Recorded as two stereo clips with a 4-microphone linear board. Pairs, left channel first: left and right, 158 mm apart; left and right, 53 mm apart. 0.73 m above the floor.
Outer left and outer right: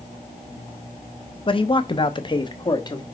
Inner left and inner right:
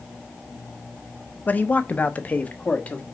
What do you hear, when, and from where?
1.5 s a man speaking: 35° left (ahead or behind), 0.8 m; by 3.0 s 25° left (ahead or behind), 1.4 m